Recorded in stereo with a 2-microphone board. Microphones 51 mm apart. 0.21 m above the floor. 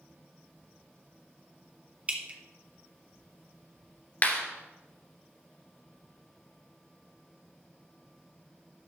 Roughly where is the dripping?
Right.